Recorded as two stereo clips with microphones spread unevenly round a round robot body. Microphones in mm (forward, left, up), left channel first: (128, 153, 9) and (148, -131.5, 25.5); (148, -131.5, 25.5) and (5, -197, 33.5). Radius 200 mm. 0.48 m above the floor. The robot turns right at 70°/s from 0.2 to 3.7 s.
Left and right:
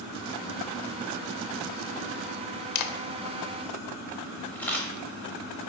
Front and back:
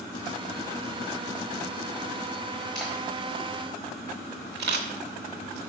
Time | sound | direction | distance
2.8 | a camera shutter | 115° left | 0.5 m